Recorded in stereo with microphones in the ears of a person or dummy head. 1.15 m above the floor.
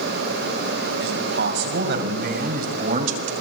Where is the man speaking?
65° right (ahead or behind), 6.5 m; by 3.3 s 40° right (ahead or behind), 5 m.